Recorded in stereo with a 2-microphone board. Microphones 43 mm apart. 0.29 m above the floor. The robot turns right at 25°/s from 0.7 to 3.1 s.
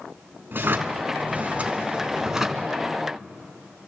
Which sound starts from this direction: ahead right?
A drawer, at 0.5 s.